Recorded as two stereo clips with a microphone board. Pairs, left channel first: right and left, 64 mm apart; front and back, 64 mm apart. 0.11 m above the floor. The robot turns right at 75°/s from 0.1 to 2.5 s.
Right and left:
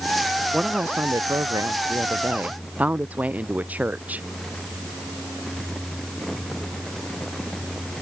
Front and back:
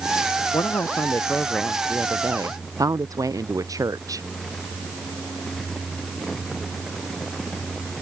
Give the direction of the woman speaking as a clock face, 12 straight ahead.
12 o'clock.